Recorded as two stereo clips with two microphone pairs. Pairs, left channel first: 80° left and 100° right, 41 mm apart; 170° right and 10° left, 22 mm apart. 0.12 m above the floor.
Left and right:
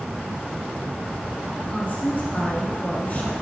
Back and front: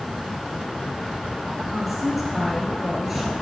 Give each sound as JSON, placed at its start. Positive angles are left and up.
{"t": 1.7, "sound": "a woman speaking", "azimuth_deg": 100, "distance_m": 1.9}